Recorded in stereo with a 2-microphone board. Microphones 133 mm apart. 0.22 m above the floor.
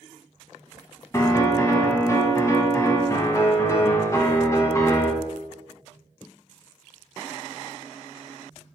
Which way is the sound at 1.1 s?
25° left (ahead or behind).